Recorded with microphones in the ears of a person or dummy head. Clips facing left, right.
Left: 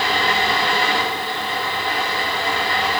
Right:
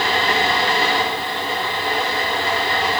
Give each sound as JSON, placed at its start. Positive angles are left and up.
{"t": 0.0, "sound": "a fan", "side_deg": -25, "distance_m": 4.5}